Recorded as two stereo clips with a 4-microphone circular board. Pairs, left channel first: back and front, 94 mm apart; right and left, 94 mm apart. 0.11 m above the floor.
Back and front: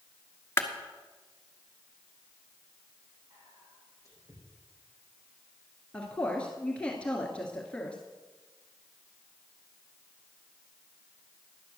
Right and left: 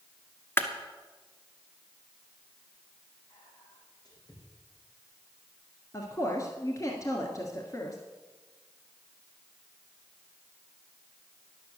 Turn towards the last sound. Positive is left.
turn(degrees=-110)